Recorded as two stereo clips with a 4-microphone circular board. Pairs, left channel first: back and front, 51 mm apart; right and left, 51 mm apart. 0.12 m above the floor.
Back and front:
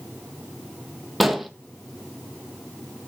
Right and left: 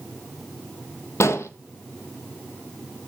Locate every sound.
1.2 s an explosion: 90° right, 0.8 m